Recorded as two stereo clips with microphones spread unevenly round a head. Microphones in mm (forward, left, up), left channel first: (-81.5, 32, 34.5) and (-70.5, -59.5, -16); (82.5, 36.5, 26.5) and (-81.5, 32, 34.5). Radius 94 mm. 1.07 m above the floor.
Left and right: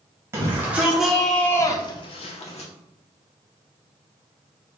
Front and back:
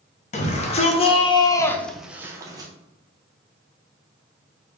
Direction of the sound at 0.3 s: 40° right.